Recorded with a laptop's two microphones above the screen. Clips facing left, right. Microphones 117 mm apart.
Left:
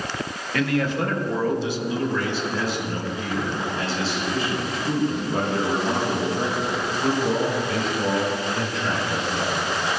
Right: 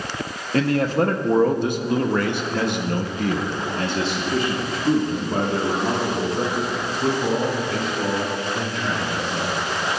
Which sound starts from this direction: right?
A man speaking, at 0.5 s.